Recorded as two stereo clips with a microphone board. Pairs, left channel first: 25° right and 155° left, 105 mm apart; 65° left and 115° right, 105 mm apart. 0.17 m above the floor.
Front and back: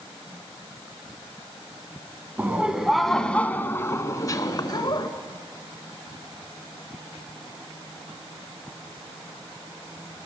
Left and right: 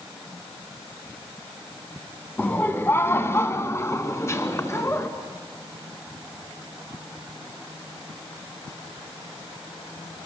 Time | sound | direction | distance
2.4 | laughter | 115° left | 1.4 m